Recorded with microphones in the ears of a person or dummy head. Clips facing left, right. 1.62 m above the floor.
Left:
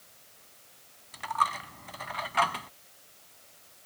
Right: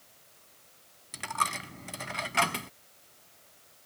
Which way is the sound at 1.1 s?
25° right (ahead or behind).